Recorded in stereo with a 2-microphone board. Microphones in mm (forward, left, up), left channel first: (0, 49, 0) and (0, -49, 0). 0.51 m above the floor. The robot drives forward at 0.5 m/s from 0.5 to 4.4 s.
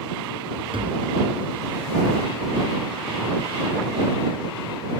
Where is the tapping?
65° right (ahead or behind); by 1.1 s 70° right (ahead or behind).